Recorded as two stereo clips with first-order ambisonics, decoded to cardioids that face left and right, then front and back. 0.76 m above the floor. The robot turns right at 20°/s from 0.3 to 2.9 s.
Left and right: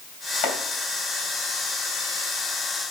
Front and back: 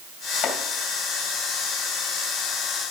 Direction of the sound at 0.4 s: 60° left.